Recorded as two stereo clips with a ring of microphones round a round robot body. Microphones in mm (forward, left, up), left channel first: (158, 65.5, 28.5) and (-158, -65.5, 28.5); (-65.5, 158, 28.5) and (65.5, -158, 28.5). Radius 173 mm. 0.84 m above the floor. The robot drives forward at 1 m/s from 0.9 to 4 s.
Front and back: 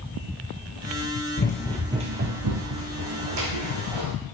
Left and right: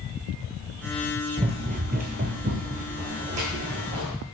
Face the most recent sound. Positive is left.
turn(degrees=-140)